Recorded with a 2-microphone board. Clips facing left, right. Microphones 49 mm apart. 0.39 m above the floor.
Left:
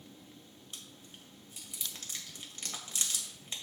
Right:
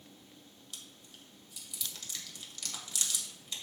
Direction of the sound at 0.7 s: 35° left (ahead or behind).